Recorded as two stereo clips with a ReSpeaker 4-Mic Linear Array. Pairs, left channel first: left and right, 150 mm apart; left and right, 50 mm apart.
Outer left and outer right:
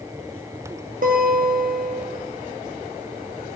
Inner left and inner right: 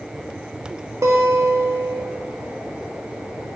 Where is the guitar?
70° right (ahead or behind), 1.9 m.